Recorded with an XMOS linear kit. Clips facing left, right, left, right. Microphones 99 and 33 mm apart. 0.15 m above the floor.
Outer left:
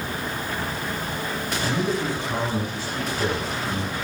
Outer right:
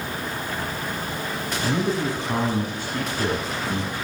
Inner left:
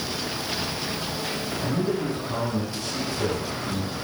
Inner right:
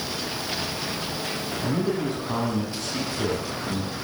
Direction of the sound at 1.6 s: 50° right (ahead or behind).